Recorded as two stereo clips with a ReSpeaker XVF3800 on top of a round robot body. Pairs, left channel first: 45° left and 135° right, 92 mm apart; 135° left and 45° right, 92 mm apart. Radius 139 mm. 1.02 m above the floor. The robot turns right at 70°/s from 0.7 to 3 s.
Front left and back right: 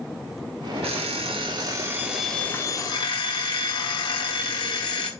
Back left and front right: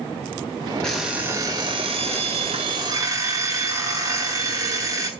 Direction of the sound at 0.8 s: 145° right.